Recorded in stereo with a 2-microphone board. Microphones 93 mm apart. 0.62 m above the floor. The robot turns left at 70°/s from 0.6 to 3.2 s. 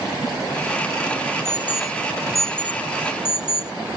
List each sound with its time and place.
1.4 s an alarm: 30° right (ahead or behind); by 3.7 s 80° left